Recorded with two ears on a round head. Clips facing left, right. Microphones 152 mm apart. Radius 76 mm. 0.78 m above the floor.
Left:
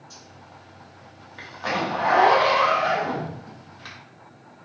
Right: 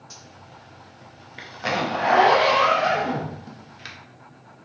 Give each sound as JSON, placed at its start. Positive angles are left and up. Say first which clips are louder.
{"t": 0.1, "sound": "a zipper", "louder": "right 1 dB", "side_deg": -30, "distance_m": 0.7}